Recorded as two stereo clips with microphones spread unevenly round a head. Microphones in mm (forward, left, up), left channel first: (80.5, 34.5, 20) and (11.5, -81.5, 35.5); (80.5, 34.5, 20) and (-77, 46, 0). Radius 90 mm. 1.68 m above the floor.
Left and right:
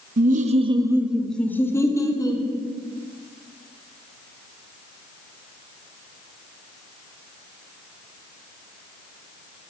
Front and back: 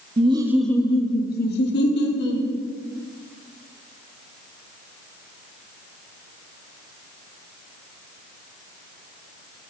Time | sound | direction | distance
0.2 | laughter | 125° right | 0.7 m